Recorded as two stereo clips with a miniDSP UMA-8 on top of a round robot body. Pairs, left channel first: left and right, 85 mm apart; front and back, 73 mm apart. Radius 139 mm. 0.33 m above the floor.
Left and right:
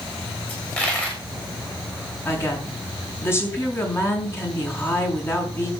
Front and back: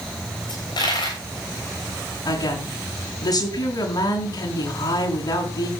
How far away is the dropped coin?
About 6 m.